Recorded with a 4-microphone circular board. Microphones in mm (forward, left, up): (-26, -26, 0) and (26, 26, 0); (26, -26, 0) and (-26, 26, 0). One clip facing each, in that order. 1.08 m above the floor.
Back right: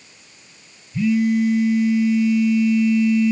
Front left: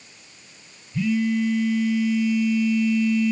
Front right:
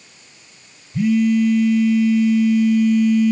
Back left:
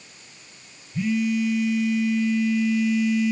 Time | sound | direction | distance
0.9 | a phone buzzing | 65° right | 1.6 m